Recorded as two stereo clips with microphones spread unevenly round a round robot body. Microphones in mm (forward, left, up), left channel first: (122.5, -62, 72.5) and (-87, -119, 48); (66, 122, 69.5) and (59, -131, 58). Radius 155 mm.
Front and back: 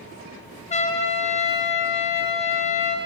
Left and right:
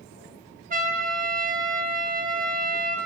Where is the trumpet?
45° right, 1.0 m.